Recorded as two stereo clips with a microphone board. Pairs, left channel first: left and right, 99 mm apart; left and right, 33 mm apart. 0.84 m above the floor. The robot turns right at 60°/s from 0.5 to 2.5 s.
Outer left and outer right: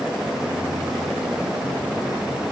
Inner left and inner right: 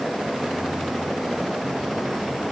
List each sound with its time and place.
Only background noise.